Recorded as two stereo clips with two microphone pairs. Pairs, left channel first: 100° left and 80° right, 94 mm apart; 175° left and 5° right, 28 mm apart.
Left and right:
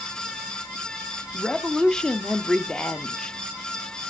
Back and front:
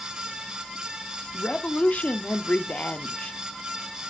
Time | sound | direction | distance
1.3 | a woman speaking | 175° left | 0.6 m